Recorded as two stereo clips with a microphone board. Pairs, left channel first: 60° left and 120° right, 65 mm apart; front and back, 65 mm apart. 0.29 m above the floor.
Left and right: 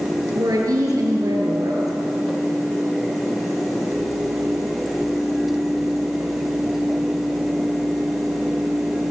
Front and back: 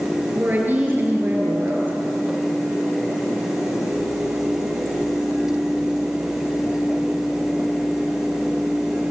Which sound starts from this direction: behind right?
A woman speaking, at 0.3 s.